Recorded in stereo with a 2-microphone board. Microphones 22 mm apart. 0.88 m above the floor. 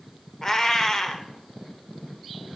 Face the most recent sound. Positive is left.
turn(degrees=20)  # may be behind; listen again after turning